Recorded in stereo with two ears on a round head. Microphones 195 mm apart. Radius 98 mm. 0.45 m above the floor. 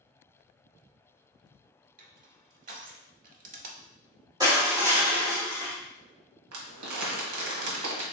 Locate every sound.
2.0 s crushing: 40° right (ahead or behind), 0.5 m
4.4 s crushing: 20° right (ahead or behind), 1.2 m
6.5 s crumpling: 75° right (ahead or behind), 1.0 m